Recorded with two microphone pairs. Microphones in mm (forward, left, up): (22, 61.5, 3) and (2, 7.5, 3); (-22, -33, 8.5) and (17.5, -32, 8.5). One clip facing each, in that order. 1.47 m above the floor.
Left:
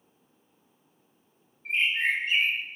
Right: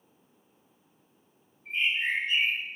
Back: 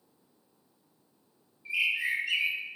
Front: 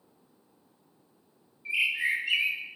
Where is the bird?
75° left, 0.9 m.